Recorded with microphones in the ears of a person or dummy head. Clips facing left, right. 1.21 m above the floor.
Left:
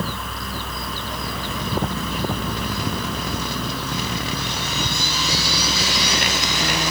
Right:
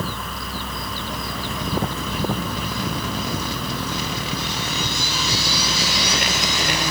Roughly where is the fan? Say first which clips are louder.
Left 1 dB; centre.